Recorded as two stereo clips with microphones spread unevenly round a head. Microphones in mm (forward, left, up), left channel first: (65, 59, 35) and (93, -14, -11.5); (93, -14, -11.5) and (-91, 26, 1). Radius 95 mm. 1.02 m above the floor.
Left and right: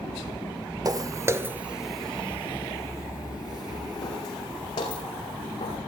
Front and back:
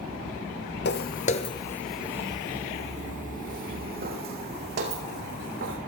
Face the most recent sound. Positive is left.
turn(degrees=135)